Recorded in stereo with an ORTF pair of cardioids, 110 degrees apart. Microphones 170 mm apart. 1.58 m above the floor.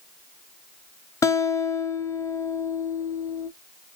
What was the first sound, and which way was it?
A guitar, 20° left.